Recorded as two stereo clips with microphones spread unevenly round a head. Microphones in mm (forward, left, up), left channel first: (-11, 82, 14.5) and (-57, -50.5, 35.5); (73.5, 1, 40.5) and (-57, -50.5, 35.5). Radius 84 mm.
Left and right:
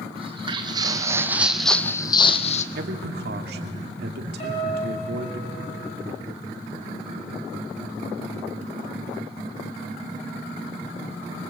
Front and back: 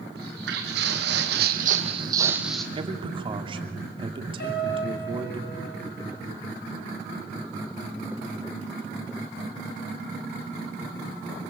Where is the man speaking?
105° right, 2.5 m.